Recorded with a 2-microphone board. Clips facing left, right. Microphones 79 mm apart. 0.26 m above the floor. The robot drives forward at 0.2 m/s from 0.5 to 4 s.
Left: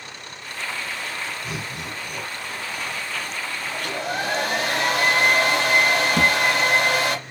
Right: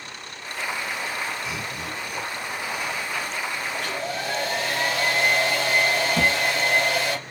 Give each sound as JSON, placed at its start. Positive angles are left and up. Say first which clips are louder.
{"t": 1.4, "sound": "laughter", "louder": "even", "side_deg": 50, "distance_m": 2.5}
{"t": 3.7, "sound": "a hair dryer", "louder": "left 2 dB", "side_deg": 65, "distance_m": 1.3}
{"t": 6.2, "sound": "a thud", "louder": "left 2 dB", "side_deg": 30, "distance_m": 0.8}